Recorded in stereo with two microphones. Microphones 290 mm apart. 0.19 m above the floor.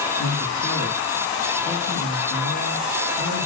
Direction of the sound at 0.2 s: 65° left (ahead or behind).